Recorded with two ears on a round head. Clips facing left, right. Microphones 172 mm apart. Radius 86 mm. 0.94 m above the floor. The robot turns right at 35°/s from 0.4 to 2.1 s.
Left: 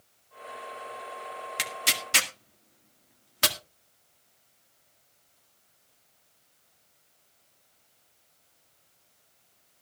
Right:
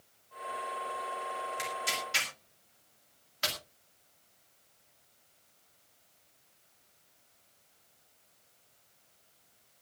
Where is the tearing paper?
75° left (ahead or behind), 1.8 m; by 3.6 s 65° left (ahead or behind), 1.8 m.